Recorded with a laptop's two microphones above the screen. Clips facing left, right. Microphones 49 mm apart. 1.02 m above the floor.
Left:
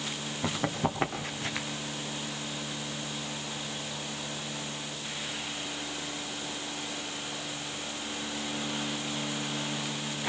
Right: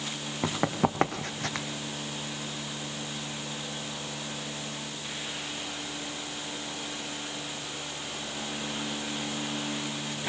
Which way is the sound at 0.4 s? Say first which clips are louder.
Right 3 dB; 55° right (ahead or behind).